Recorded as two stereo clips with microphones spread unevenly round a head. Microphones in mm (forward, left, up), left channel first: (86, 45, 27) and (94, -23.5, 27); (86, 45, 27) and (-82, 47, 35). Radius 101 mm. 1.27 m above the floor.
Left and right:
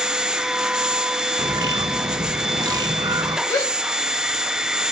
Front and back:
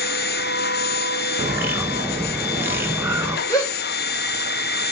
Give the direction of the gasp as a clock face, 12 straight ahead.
10 o'clock.